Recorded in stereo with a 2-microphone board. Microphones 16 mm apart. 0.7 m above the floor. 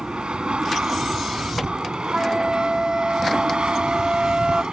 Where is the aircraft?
70° right (ahead or behind); by 4.7 s 65° right (ahead or behind).